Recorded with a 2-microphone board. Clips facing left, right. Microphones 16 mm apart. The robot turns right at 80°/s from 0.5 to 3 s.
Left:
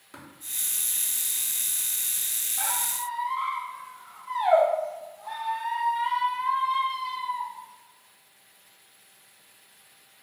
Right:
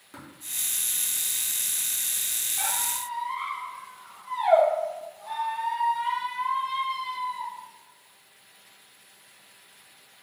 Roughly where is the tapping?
Centre.